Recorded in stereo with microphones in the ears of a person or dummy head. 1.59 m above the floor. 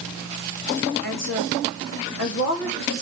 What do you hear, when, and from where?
1.0 s a woman speaking: 75° left (ahead or behind), 3 m